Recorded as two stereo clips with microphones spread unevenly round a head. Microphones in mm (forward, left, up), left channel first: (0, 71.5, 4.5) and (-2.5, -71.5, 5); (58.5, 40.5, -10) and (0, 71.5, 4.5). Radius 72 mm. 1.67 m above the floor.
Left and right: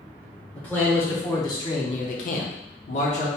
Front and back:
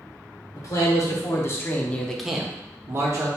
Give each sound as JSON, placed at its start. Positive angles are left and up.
{"t": 0.6, "sound": "a man speaking", "azimuth_deg": 10, "distance_m": 1.2}